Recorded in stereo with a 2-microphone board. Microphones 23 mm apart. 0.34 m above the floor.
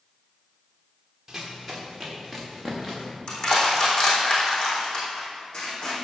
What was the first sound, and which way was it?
Running footsteps, 10° right (ahead or behind).